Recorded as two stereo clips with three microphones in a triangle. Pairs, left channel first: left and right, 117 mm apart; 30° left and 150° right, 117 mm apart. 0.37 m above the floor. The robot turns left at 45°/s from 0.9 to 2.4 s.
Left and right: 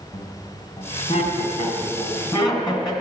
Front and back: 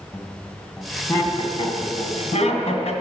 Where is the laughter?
110° left, 2 m; by 2.9 s 40° left, 2 m.